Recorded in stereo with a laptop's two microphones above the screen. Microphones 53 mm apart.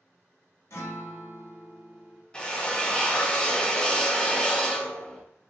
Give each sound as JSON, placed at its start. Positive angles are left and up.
{"t": 0.7, "sound": "a guitar", "side_deg": 55, "distance_m": 0.9}
{"t": 2.3, "sound": "a drill", "side_deg": 15, "distance_m": 0.6}